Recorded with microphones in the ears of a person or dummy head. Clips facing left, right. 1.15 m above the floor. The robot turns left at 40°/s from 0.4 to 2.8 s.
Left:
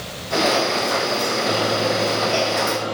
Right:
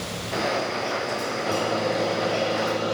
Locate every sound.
1.5 s a microwave: 25° left, 4.5 m; by 3.0 s 30° right, 4.5 m